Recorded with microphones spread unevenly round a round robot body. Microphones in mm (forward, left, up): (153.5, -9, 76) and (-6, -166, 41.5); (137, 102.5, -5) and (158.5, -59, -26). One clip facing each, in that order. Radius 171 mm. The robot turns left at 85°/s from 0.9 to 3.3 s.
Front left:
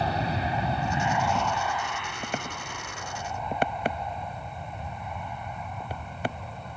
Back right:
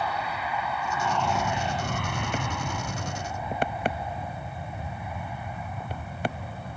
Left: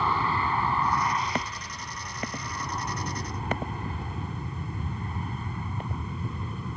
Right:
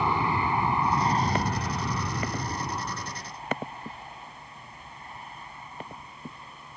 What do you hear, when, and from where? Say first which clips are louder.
0.0 s an aircraft: front left 4 dB, right 1 dB; 10° right; by 6.8 s 145° left